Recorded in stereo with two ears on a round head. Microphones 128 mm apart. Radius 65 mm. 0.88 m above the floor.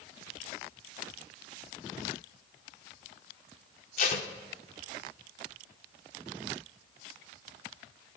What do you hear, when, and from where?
4.0 s tape being pulled: 50° left (ahead or behind), 0.8 m